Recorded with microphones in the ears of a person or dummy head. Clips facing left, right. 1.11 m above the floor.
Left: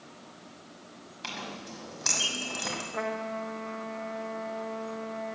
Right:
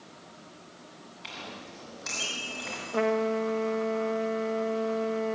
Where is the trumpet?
55° right (ahead or behind), 0.9 m.